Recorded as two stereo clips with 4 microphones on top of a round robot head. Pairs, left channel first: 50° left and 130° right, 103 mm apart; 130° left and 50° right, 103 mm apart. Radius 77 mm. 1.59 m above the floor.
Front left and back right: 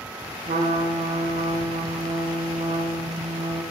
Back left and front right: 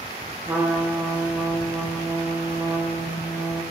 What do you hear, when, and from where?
0.5 s a trumpet: 120° right, 0.9 m